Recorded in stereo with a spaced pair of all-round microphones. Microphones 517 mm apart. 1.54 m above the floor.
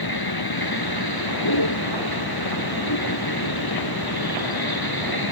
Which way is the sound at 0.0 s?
45° left (ahead or behind).